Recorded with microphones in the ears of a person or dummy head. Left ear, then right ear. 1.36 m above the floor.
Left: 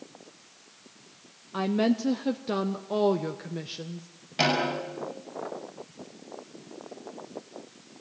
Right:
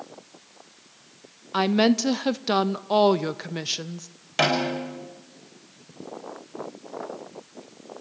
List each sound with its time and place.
1.5 s a woman speaking: 30° right (ahead or behind), 0.5 m
4.4 s a snare drum: 40° right (ahead or behind), 6 m